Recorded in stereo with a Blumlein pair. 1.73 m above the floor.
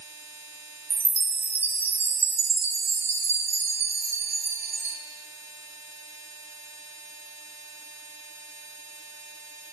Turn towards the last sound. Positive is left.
turn(degrees=-70)